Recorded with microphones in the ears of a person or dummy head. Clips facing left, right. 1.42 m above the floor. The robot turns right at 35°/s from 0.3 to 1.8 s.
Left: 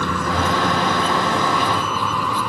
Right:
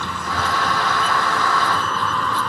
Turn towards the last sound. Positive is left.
turn(degrees=175)